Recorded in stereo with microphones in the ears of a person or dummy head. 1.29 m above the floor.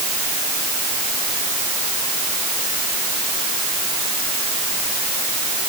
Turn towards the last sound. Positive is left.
No sound to turn to.